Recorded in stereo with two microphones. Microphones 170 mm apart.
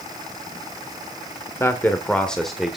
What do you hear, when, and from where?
1.6 s a man speaking: 15° left (ahead or behind), 1.1 m; by 2.8 s centre (ahead or behind), 1.3 m